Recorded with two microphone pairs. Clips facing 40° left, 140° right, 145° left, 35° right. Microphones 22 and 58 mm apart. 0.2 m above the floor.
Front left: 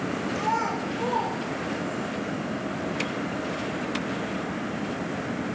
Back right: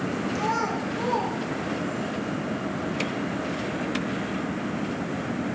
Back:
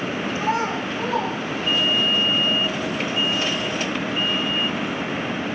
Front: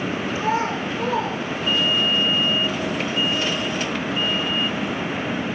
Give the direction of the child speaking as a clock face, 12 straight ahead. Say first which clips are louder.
Front left 1 dB, even; 4 o'clock.